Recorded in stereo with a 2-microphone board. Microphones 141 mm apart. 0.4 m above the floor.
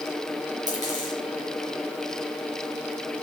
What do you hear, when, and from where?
0.7 s a dropped coin: 60° right (ahead or behind), 3 m